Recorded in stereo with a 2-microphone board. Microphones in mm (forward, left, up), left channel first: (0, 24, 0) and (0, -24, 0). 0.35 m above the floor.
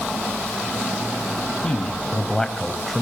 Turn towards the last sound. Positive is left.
turn(degrees=0)  # may be behind; listen again after turning